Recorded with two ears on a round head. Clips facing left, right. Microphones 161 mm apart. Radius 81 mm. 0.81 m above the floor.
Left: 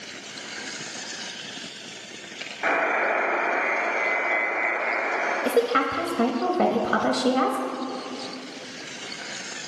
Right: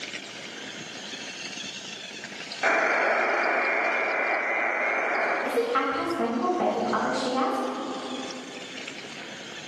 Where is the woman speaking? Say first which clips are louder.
Left 6 dB; 45° left (ahead or behind), 0.7 m.